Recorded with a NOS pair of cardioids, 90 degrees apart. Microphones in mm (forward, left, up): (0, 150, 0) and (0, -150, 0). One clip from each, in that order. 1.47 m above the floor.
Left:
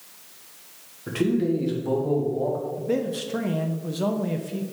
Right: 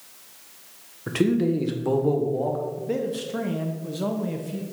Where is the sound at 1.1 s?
35° right, 1.5 m.